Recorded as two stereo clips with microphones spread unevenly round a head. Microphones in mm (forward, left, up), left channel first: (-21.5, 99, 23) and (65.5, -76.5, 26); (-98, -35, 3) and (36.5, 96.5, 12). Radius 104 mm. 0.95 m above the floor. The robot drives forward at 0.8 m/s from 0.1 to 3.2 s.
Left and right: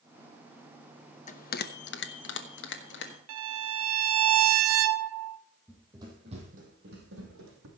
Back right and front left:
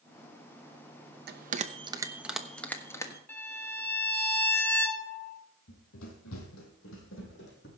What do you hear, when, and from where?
1.3 s a bell: 70° left, 0.9 m; by 3.2 s 150° left, 1.5 m
3.3 s a violin: 55° right, 0.7 m
5.7 s running footsteps: 145° right, 2.5 m; by 7.7 s 90° right, 3 m